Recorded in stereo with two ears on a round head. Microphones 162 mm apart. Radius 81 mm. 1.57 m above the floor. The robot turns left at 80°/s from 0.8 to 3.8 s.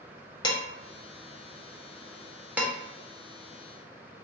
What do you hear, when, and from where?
0.4 s dishes clattering: 25° left (ahead or behind), 0.6 m; by 2.7 s 15° right (ahead or behind), 0.6 m